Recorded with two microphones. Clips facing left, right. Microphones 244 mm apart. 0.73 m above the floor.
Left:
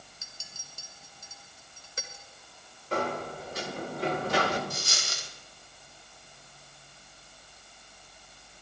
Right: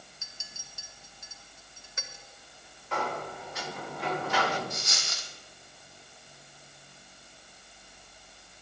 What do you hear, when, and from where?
0.2 s a clink: 35° left (ahead or behind), 1.9 m
2.9 s a sliding door: 40° left (ahead or behind), 2 m
4.7 s a dropped coin: 35° left (ahead or behind), 1.8 m